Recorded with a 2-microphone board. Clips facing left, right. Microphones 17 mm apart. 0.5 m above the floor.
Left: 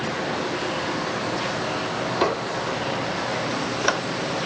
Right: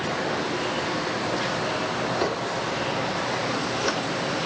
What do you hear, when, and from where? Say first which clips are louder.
2.2 s a squeak: left 2 dB; 35° left (ahead or behind), 0.5 m